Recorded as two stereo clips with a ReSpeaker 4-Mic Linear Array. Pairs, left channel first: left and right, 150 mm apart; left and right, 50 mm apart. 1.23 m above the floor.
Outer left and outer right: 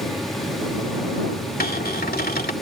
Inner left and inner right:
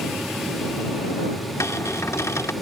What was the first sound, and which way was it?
A cupboard door, 85° left.